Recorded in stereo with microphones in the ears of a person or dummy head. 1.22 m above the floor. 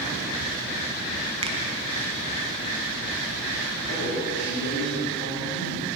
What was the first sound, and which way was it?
A finger snap, 35° right (ahead or behind).